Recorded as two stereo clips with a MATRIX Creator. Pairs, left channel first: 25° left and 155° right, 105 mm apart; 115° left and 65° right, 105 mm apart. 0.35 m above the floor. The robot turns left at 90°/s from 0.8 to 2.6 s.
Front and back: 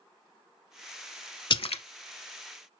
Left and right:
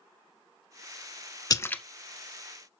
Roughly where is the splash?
Ahead left.